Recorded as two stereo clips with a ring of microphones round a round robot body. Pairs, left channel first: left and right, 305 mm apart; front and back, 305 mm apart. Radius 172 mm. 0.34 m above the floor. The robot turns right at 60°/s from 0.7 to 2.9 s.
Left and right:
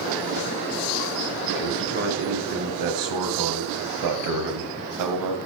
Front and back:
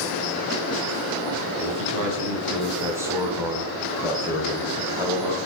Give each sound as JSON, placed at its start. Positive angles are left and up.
{"t": 1.6, "sound": "a man speaking", "azimuth_deg": 180, "distance_m": 2.0}